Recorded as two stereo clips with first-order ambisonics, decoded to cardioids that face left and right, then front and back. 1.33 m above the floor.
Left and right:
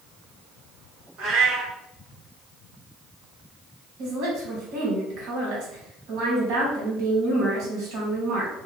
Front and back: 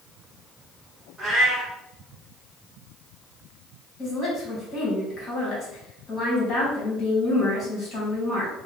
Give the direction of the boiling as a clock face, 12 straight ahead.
No boiling in this recording.